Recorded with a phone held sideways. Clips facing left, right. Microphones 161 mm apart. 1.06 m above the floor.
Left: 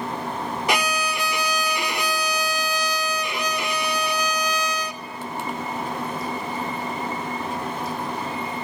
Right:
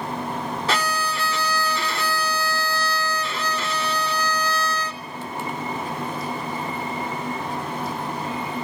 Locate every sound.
0.7 s a violin: 15° left (ahead or behind), 0.7 m